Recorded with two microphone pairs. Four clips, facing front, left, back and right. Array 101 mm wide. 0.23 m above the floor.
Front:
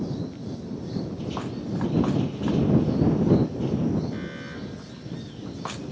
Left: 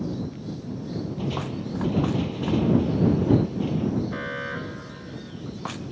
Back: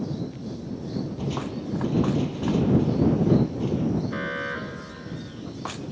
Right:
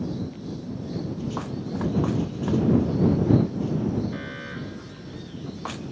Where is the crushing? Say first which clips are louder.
Left 1 dB, back 1 dB; 125° left.